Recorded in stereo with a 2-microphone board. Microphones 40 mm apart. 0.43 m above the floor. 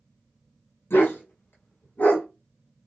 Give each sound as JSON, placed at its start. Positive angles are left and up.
{"t": 0.9, "sound": "a dog barking", "side_deg": 80, "distance_m": 1.1}